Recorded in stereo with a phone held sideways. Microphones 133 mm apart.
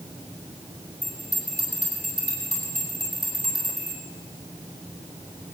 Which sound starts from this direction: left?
A bell, at 1.0 s.